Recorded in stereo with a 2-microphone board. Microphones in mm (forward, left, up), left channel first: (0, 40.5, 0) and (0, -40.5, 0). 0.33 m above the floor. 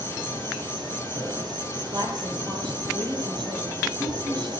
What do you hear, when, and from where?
0.0 s an insect: 65° right (ahead or behind), 10 m
1.9 s a woman speaking: 65° right (ahead or behind), 8 m